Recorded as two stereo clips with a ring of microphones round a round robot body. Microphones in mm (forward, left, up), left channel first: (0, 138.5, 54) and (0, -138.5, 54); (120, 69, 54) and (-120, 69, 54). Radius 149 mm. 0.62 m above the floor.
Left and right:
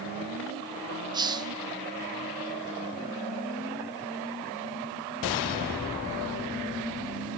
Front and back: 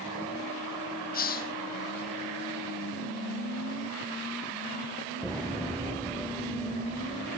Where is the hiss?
25° right, 0.8 m.